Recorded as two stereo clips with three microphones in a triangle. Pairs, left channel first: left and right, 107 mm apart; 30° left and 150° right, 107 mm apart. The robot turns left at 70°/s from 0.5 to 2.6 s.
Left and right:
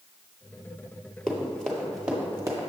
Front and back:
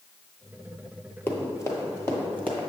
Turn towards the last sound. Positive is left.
turn(degrees=-50)